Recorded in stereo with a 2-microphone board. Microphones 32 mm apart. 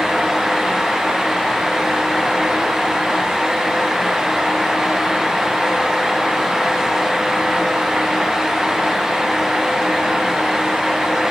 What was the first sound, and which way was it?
Only background noise.